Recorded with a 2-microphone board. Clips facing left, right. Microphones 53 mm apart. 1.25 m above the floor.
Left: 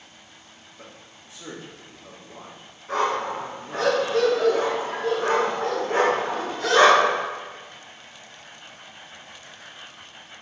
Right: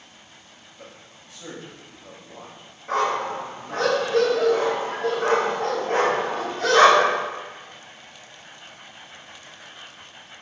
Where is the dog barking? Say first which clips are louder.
Right 1 dB; 60° right (ahead or behind), 1.7 m.